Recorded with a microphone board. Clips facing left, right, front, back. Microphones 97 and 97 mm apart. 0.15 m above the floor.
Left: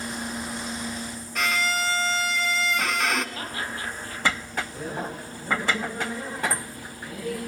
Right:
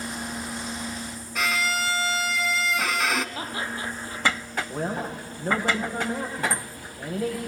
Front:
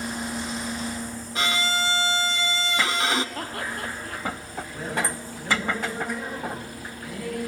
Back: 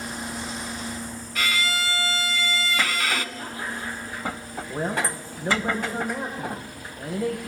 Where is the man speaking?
130° right, 9.5 m.